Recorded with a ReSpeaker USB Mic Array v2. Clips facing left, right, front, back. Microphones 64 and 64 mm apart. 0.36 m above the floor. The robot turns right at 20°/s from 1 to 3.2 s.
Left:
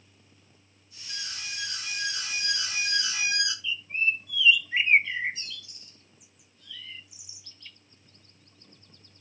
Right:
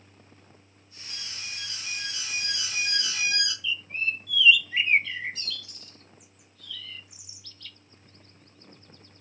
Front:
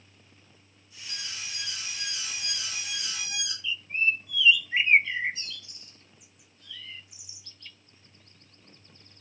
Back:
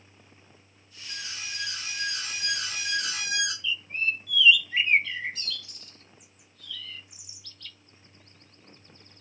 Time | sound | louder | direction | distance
1.1 | an alarm | left 2 dB, back 2 dB | 115° left | 4.5 m
3.6 | a bird | left 4 dB, front 2 dB | 40° left | 0.9 m